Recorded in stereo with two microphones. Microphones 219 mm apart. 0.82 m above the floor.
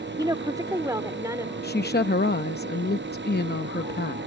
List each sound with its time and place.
0.2 s a woman speaking: 20° right (ahead or behind); by 1.5 s 15° right (ahead or behind)
1.6 s a woman speaking: 50° left (ahead or behind)